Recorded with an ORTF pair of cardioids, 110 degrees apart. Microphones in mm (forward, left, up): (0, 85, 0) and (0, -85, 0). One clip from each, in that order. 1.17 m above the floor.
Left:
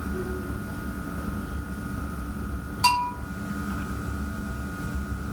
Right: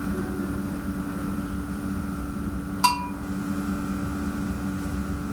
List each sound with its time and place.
0.0 s a fan: 35° right, 1.1 m
2.8 s a bell: 25° right, 1.8 m